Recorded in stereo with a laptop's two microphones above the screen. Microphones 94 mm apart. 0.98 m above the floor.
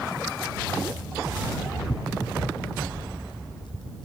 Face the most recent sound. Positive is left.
turn(degrees=65)  # may be behind; listen again after turning